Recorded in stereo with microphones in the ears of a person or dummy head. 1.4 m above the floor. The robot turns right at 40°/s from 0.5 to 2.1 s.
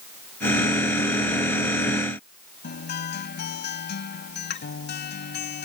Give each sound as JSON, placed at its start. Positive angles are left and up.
{"t": 2.6, "sound": "a guitar", "side_deg": 50}